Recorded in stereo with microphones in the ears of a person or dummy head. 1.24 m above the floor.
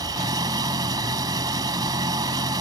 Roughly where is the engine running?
Right.